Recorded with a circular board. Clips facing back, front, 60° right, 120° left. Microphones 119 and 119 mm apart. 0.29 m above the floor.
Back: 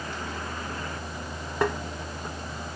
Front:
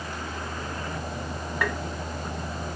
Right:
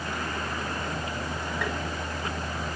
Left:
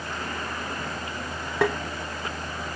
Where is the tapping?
120° left, 0.5 m.